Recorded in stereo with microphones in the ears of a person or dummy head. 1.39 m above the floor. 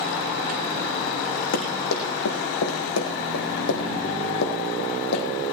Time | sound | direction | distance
1.5 | running footsteps | 75° left (ahead or behind) | 5 m